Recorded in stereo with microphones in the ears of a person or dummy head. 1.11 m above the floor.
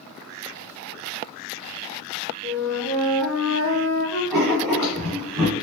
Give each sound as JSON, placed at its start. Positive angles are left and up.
{"t": 2.4, "sound": "a flute", "side_deg": 5, "distance_m": 1.4}
{"t": 4.3, "sound": "writing", "side_deg": -5, "distance_m": 1.4}